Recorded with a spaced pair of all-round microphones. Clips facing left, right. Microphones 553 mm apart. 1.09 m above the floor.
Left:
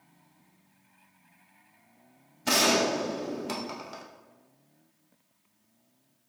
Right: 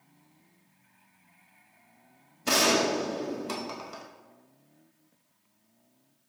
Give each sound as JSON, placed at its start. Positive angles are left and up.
{"t": 2.5, "sound": "a gunshot", "side_deg": 10, "distance_m": 0.6}